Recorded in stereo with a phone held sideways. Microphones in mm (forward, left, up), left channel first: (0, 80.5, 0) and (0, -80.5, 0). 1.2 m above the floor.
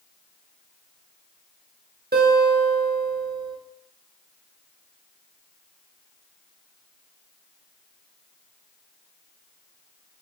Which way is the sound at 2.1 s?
80° right.